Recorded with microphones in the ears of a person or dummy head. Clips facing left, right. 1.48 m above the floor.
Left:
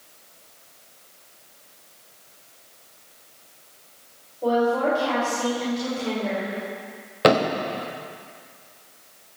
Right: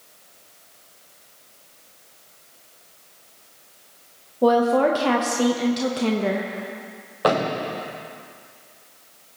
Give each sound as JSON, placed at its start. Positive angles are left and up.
{"t": 4.4, "sound": "a woman speaking", "side_deg": -70, "distance_m": 1.2}
{"t": 7.2, "sound": "a thud", "side_deg": 30, "distance_m": 1.2}